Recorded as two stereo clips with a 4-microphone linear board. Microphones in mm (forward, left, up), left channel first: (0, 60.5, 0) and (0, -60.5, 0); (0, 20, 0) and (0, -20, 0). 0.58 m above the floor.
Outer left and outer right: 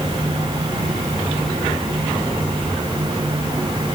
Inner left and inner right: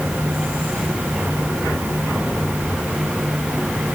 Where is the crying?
I don't hear crying.